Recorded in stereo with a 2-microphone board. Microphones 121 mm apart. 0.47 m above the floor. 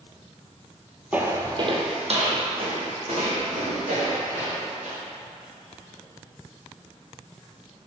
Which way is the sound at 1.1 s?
10° right (ahead or behind).